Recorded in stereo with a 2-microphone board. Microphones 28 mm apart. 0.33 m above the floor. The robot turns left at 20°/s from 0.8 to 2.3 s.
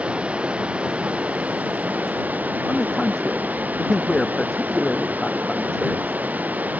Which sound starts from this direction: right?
Running water, at 0.0 s.